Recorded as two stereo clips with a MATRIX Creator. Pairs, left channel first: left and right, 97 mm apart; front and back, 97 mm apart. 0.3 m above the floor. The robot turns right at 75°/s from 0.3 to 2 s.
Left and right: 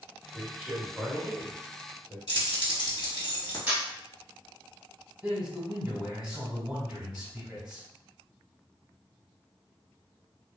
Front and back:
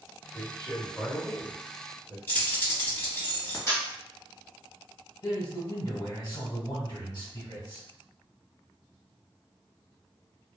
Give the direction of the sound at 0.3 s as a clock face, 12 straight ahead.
2 o'clock.